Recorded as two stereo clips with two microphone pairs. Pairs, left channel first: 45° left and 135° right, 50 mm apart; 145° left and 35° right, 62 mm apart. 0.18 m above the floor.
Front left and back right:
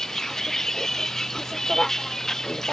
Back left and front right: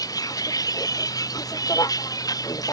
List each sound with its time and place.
0.0 s a vehicle: 125° left